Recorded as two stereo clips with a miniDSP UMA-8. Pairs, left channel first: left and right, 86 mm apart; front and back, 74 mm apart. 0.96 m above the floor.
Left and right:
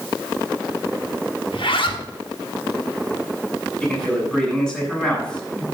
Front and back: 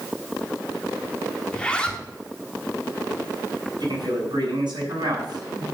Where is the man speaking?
170° left, 6.5 m.